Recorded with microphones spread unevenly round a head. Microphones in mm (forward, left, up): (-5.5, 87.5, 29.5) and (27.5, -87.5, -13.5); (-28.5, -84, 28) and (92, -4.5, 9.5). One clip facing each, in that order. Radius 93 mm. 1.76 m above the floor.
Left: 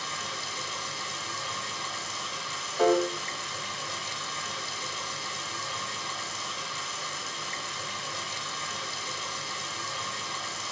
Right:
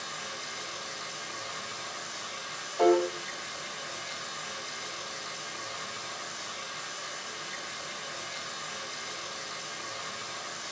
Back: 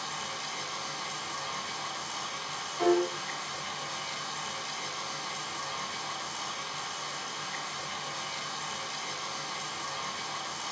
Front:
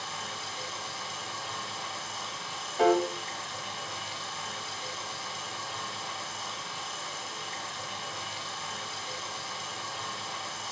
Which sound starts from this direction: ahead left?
A piano, at 2.8 s.